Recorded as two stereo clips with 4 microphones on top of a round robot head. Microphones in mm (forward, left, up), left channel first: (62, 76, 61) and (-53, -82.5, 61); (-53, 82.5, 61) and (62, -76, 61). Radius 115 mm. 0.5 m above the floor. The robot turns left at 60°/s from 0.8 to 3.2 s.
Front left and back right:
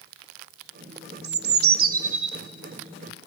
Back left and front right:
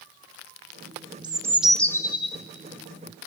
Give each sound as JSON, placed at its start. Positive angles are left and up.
{"t": 1.2, "sound": "a bird", "azimuth_deg": -115, "distance_m": 1.0}